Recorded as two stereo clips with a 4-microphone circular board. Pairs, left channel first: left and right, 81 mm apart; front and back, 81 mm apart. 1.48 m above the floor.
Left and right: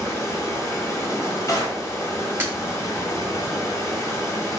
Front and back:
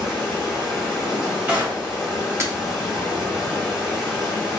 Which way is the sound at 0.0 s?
100° left.